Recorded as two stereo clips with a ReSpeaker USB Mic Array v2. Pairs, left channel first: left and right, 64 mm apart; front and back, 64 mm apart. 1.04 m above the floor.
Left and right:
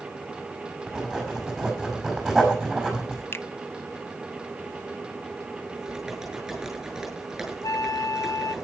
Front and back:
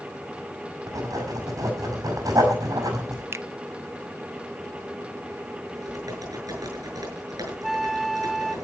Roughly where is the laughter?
No laughter in this recording.